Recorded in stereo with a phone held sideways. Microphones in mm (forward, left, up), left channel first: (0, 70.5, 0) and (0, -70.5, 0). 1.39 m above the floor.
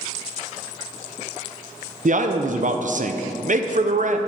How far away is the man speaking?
About 0.6 m.